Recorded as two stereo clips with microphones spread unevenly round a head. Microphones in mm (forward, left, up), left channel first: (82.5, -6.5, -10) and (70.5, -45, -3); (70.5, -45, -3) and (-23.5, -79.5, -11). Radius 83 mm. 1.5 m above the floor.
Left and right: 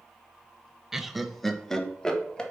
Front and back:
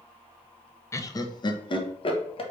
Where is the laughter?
35° right, 0.7 m; by 2.4 s straight ahead, 1.2 m.